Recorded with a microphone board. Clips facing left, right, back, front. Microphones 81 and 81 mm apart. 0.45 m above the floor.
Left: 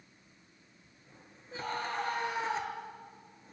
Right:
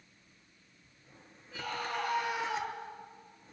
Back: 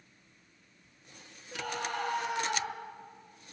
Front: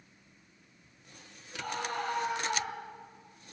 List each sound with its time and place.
1.5 s a scream: 150° left, 9 m